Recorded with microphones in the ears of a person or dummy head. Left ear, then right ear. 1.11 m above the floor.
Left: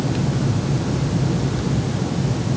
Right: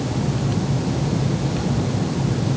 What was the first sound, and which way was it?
Only background noise.